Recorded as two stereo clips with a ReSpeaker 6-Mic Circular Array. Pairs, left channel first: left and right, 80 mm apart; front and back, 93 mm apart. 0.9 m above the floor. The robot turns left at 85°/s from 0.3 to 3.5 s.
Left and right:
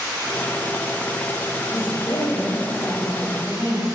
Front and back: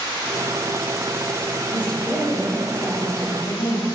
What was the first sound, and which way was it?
A woman speaking, 150° left.